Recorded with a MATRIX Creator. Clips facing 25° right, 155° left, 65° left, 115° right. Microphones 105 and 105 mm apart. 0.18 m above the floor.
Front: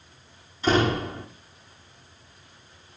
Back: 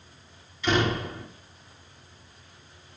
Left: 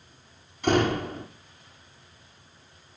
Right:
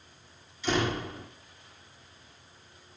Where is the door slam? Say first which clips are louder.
Front 3 dB, left 6 dB; 35° left, 5.5 m.